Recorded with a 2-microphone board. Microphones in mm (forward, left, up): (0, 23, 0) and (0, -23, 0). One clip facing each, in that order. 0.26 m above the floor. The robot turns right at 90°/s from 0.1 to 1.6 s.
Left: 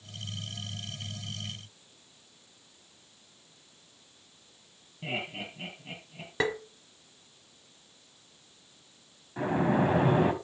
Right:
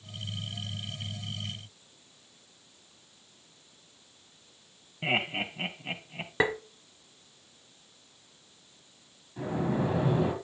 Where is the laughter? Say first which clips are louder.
Right 6 dB; 50° right (ahead or behind), 1.9 m.